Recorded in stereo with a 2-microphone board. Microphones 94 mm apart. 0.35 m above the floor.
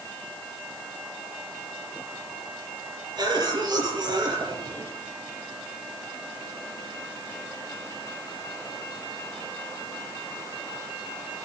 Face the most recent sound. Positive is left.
turn(degrees=-50)  # may be behind; listen again after turning